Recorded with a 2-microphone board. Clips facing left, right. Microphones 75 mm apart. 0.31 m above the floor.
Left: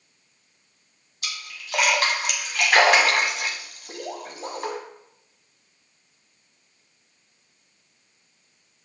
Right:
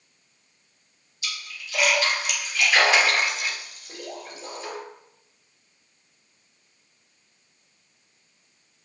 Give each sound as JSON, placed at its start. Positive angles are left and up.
{"t": 1.2, "sound": "a splash", "side_deg": 65, "distance_m": 1.3}